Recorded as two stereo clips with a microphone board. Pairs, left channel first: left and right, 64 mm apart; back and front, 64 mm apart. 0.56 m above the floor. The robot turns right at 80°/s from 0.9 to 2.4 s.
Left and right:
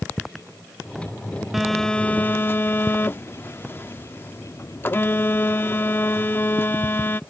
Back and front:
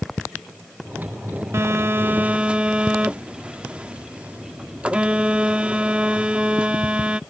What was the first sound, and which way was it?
A phone buzzing, 5° right.